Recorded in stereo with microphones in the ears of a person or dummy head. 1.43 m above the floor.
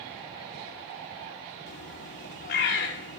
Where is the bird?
55° left (ahead or behind), 1.0 m.